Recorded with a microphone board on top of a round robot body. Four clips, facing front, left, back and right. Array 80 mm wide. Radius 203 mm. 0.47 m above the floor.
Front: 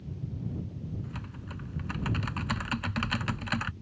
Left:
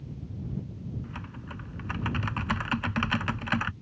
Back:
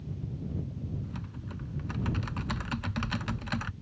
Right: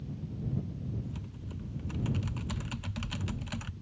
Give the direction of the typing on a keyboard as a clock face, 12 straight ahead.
9 o'clock.